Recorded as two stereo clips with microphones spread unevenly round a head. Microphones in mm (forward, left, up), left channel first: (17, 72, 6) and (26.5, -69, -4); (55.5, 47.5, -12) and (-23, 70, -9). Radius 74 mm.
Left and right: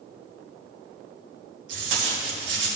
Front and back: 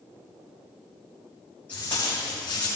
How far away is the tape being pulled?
About 4 m.